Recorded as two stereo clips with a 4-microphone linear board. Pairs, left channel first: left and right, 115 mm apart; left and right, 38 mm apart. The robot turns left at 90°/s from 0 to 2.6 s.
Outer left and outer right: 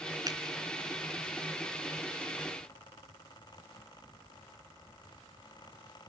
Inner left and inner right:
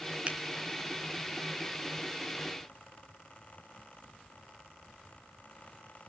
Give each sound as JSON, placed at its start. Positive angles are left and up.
{"t": 0.3, "sound": "a finger snap", "side_deg": -35, "distance_m": 2.5}